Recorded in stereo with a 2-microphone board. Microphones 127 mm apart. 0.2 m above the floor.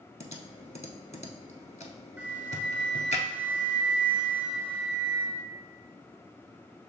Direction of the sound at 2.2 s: 10° right (ahead or behind).